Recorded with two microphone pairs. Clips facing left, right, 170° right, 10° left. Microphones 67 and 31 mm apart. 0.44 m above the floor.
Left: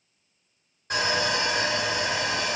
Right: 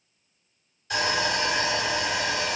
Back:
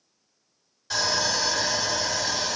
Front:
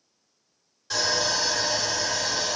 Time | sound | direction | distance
0.9 | sawing | 105° left | 2.0 m